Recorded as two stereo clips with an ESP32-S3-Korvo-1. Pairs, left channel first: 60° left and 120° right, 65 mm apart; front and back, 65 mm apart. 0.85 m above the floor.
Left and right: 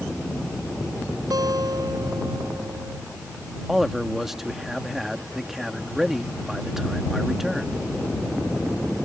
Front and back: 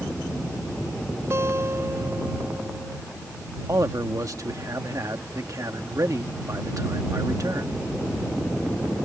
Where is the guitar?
135° right.